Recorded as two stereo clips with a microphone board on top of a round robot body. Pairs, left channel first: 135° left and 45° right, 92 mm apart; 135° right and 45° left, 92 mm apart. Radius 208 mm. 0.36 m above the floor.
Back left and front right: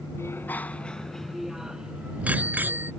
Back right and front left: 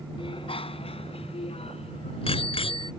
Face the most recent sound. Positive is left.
turn(degrees=-110)